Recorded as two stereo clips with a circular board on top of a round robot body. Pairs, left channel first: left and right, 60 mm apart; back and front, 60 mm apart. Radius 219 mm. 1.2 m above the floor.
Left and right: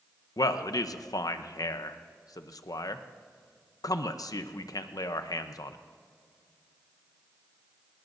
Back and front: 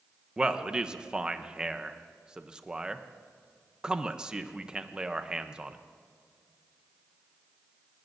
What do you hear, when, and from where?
0.4 s a man speaking: 75° left, 0.8 m